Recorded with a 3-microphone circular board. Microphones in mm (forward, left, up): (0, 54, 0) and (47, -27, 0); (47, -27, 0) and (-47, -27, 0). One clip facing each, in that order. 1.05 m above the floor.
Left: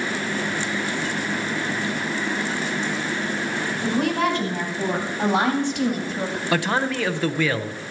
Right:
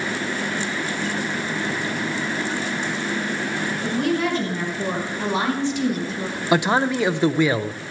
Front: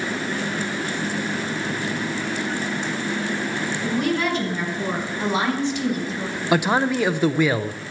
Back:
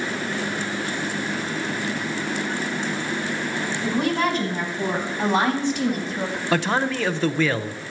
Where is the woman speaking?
125° left, 5 m; by 6.4 s 140° left, 2 m.